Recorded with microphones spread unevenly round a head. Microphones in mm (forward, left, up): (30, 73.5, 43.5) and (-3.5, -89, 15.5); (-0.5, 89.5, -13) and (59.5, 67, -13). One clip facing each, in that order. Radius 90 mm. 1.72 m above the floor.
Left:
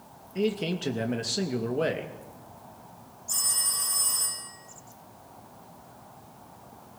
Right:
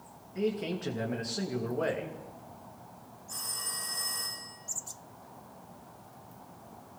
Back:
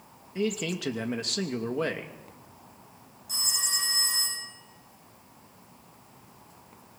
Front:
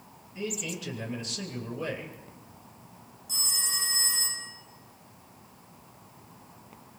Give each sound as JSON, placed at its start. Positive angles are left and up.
{"t": 0.3, "sound": "a man speaking", "azimuth_deg": 135, "distance_m": 2.5}
{"t": 3.3, "sound": "a phone ringing", "azimuth_deg": 125, "distance_m": 9.0}